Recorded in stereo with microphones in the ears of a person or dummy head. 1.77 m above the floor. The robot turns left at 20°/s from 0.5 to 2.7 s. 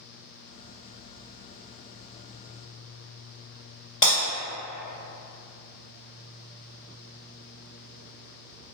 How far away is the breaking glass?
About 1.7 m.